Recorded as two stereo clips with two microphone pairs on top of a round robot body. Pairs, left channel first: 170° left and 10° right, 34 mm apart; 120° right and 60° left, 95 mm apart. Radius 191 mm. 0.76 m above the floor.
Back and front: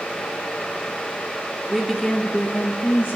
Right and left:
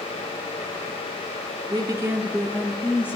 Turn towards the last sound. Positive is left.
turn(degrees=170)